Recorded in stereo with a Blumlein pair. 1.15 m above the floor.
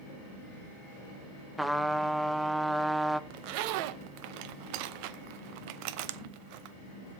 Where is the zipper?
45° right, 0.6 m.